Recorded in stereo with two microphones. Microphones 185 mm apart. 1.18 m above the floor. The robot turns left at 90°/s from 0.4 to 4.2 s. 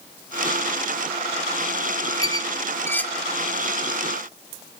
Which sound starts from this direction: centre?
A squeak, at 2.2 s.